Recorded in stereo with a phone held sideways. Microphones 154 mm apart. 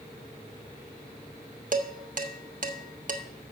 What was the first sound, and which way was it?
Dishes clattering, 60° right (ahead or behind).